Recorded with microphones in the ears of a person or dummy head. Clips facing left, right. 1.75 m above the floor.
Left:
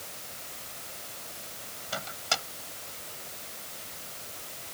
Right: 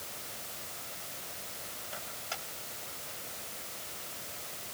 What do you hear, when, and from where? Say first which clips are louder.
1.9 s a microwave: left 10 dB; 85° left